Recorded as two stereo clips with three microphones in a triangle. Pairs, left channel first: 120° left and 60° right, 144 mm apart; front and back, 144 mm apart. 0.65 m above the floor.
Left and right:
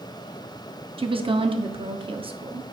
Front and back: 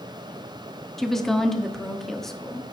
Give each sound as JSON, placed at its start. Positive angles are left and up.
{"t": 1.0, "sound": "a woman speaking", "azimuth_deg": -85, "distance_m": 0.9}